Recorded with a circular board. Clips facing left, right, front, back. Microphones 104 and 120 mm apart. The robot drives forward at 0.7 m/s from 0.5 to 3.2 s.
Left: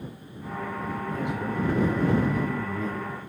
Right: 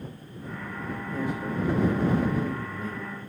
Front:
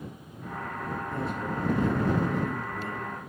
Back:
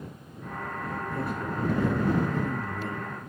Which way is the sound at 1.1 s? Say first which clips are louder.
Right 1 dB, even; 70° left.